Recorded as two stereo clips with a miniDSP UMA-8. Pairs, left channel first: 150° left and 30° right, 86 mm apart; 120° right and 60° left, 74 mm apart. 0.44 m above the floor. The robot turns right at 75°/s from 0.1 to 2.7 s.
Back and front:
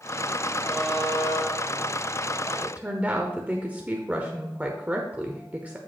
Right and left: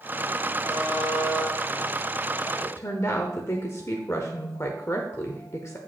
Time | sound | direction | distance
0.7 | a buzzer | 70° left | 3 m
2.6 | a woman speaking | 100° right | 1.0 m